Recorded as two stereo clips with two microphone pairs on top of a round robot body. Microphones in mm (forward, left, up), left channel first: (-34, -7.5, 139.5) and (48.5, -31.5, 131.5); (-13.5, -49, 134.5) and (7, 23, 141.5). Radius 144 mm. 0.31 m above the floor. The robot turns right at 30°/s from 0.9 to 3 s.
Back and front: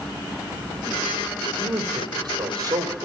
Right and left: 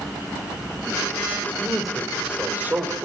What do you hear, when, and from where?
1.6 s a man speaking: 25° right, 2 m; by 3.1 s 15° left, 2 m